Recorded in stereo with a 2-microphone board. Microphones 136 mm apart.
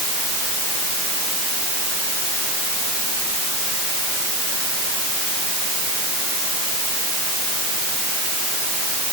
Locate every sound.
Only background noise.